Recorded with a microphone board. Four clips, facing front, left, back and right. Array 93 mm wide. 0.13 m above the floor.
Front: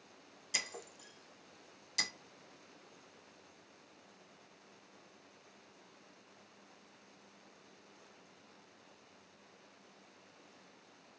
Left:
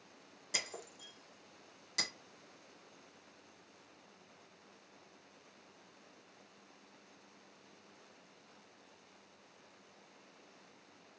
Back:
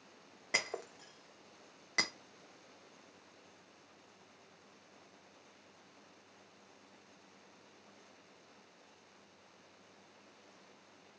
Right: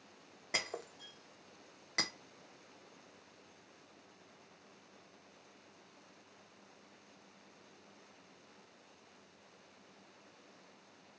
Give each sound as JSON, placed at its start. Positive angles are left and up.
{"t": 0.5, "sound": "breaking glass", "azimuth_deg": -150, "distance_m": 0.8}